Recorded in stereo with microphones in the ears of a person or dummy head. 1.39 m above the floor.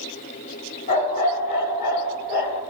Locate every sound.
0.9 s a dog barking: 35° left (ahead or behind), 3 m; by 2.6 s 45° left (ahead or behind), 2 m